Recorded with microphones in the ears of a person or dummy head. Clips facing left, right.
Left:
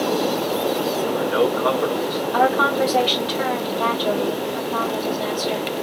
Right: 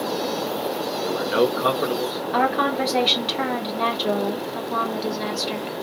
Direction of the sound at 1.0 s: 35° right (ahead or behind).